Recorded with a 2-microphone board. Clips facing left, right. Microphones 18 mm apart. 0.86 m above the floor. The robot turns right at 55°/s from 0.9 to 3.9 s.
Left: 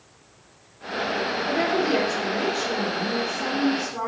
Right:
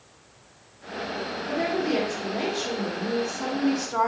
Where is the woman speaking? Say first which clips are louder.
Left 2 dB; 120° left, 3 m; by 4.1 s 105° right, 3 m.